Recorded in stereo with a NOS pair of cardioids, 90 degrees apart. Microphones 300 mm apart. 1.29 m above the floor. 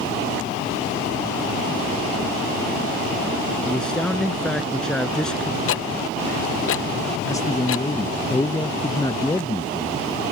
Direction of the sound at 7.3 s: 10° left.